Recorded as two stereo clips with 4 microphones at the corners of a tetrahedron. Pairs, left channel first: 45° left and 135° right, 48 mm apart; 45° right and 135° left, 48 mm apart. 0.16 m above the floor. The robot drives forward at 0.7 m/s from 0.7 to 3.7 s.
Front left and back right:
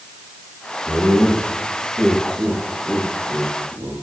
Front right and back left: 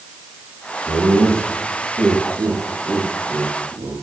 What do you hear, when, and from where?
0.9 s laughter: 150° left, 5 m; by 3.9 s 160° left, 6.5 m